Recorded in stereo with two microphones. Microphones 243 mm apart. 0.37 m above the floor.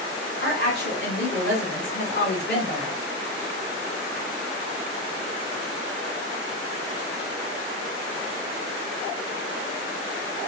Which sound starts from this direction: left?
A woman speaking, at 0.4 s.